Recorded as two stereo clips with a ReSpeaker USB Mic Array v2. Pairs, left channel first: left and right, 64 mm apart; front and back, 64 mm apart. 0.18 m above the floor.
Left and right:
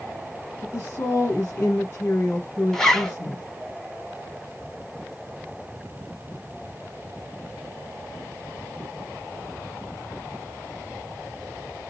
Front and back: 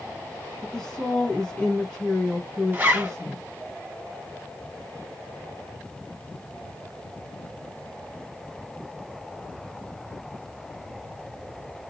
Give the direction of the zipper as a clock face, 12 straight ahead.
7 o'clock.